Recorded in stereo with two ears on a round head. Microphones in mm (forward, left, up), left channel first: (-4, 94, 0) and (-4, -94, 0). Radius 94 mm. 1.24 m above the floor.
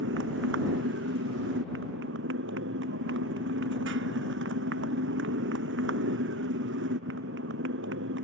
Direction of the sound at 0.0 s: 60° right (ahead or behind).